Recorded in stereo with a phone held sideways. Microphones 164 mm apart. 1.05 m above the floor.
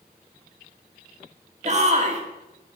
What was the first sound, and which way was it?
A shout, 45° right (ahead or behind).